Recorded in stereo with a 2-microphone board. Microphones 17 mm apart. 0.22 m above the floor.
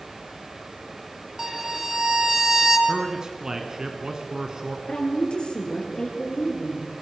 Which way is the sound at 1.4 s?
15° right (ahead or behind).